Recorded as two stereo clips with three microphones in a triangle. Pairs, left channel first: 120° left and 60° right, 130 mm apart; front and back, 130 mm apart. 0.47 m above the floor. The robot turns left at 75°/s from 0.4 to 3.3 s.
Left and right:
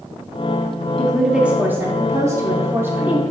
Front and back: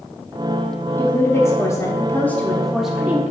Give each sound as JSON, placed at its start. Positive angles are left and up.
{"t": 1.0, "sound": "a woman speaking", "azimuth_deg": 40, "distance_m": 0.7}